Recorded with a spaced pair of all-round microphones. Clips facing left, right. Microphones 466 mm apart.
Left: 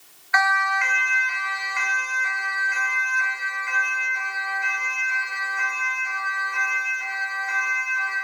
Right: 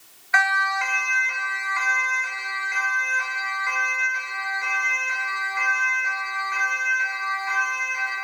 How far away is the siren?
About 2.5 m.